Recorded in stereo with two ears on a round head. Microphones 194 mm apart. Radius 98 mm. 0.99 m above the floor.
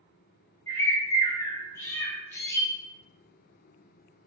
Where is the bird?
15° left (ahead or behind), 0.7 m.